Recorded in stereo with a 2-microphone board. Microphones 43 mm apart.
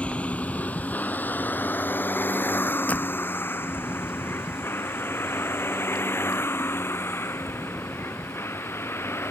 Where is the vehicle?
30° left (ahead or behind); by 9.3 s 70° left (ahead or behind).